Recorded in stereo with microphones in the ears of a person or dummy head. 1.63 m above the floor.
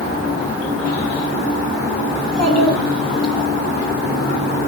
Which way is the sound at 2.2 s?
40° right (ahead or behind).